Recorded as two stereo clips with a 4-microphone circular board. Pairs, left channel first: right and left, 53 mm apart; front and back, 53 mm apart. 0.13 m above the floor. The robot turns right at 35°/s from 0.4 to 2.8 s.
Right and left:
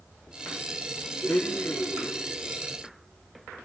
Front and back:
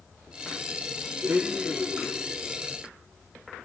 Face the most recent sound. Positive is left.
turn(degrees=-75)